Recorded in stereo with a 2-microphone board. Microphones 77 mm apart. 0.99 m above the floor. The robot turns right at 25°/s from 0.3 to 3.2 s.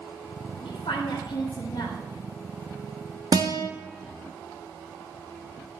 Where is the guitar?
60° right (ahead or behind), 1.0 m.